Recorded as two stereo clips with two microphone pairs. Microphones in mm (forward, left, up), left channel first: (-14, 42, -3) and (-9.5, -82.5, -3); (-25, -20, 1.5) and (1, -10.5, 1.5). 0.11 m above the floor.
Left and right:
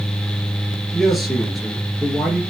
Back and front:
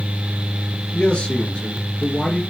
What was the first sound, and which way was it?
A man speaking, 175° right.